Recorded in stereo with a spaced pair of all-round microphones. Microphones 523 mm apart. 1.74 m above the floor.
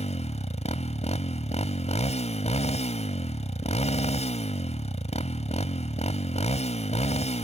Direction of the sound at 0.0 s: 15° left (ahead or behind).